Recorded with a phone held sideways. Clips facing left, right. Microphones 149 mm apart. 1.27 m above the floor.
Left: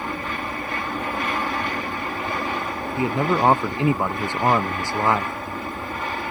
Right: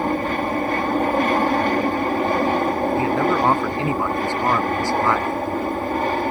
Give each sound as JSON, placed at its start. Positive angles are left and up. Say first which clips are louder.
{"t": 0.0, "sound": "an aircraft", "louder": "right 8 dB", "side_deg": -45}
{"t": 3.0, "sound": "a man speaking", "louder": "left 2 dB", "side_deg": 20}